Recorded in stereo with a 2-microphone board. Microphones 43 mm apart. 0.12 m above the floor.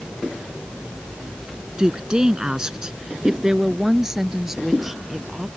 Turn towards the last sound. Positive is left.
turn(degrees=-10)  # may be behind; listen again after turning